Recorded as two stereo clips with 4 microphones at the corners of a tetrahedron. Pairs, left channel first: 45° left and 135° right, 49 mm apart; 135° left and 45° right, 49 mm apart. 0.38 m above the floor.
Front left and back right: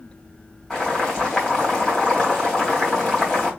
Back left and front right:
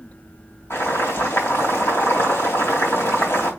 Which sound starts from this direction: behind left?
Boiling, at 0.7 s.